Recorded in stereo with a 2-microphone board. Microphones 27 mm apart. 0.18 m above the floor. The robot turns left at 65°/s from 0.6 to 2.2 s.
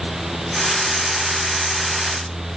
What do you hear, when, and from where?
Only background noise.